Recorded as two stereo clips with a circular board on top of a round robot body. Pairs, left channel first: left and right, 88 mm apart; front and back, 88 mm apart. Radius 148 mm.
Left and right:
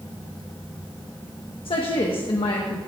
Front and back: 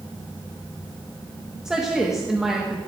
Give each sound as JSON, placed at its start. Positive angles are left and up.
{"t": 1.6, "sound": "a woman speaking", "azimuth_deg": 95, "distance_m": 1.3}